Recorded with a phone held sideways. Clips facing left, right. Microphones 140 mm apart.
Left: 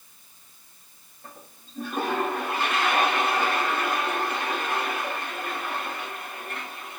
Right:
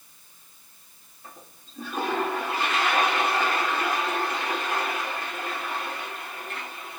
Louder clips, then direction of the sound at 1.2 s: Left 1 dB; 60° left (ahead or behind).